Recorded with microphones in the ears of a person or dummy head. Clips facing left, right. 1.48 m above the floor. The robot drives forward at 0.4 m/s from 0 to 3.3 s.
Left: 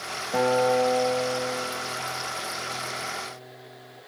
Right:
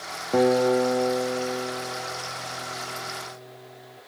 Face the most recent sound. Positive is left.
turn(degrees=-20)  # may be behind; listen again after turning